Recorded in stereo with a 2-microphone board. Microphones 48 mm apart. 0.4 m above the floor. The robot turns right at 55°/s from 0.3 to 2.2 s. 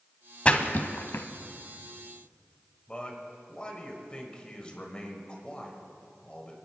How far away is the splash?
About 0.9 m.